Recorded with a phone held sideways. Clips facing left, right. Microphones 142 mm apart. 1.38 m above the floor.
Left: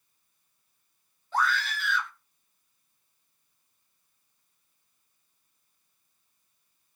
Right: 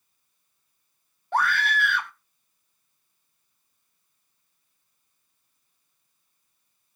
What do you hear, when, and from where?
1.3 s a scream: 60° right (ahead or behind), 1.0 m